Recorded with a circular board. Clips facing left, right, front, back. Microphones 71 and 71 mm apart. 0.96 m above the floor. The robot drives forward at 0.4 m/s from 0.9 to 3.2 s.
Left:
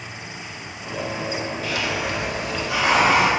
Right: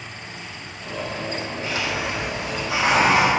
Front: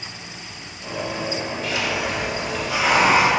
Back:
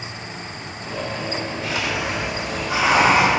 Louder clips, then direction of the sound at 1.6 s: Even, even; 145° right.